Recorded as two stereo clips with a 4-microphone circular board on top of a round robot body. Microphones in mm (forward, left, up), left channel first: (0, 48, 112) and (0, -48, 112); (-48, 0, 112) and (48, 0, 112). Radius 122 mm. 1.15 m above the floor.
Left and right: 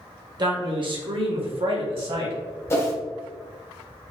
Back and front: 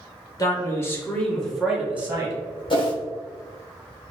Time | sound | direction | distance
0.4 | a man speaking | 130° right | 1.4 m
2.7 | a whoosh | 150° left | 1.2 m